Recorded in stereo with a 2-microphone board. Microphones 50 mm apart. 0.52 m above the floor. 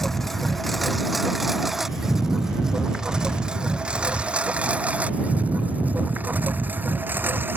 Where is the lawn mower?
5° left (ahead or behind); by 7.6 s 45° right (ahead or behind).